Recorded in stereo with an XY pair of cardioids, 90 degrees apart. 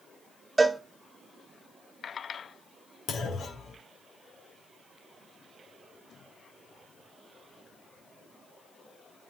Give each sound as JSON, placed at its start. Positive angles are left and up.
{"t": 0.6, "sound": "a cowbell", "azimuth_deg": -20, "distance_m": 1.3}
{"t": 3.1, "sound": "a clunk", "azimuth_deg": 65, "distance_m": 3.0}